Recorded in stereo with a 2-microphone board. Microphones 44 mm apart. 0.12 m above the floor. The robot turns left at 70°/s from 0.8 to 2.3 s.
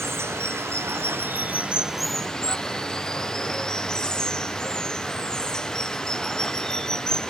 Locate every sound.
0.0 s running water: 95° right; by 7.3 s 160° left